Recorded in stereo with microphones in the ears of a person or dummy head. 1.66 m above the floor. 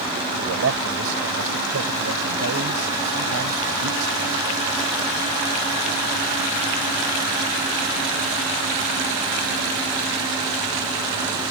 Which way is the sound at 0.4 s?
65° right (ahead or behind).